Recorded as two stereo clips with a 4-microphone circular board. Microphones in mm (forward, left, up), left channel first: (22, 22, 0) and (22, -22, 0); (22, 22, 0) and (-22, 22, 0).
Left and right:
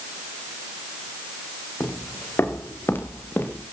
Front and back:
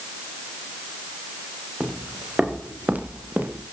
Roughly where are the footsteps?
Left.